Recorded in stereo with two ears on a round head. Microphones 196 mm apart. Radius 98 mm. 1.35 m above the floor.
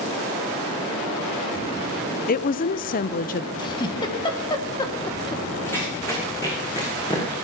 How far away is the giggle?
About 1.2 m.